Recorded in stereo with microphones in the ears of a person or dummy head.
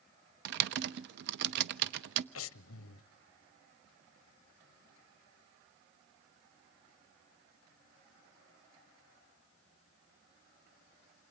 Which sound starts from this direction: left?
Breathing, at 2.4 s.